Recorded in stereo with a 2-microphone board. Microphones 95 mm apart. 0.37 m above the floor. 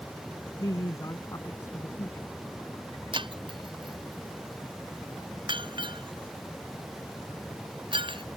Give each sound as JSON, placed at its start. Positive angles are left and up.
{"t": 0.6, "sound": "a woman speaking", "side_deg": 40}
{"t": 3.1, "sound": "breaking glass", "side_deg": -55}